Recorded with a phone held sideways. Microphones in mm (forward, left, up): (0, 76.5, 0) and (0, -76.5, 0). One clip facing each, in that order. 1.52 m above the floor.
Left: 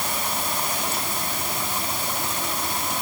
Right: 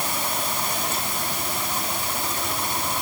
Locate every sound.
Only background noise.